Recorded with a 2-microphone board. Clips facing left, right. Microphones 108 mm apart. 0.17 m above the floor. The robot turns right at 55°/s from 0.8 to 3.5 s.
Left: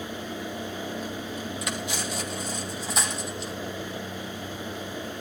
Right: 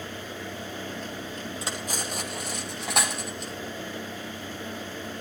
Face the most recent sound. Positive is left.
turn(degrees=-45)  # may be behind; listen again after turning